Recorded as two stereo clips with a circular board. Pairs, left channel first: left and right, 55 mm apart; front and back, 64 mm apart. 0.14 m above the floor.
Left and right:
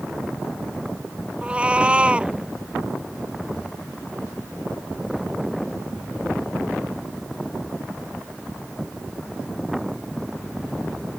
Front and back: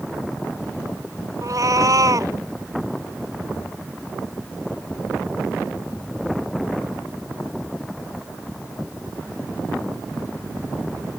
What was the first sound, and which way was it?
A cat meowing, 160° right.